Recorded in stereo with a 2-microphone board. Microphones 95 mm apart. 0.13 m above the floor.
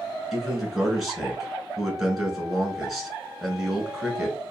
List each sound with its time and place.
0.3 s a man speaking: centre (ahead or behind), 1.3 m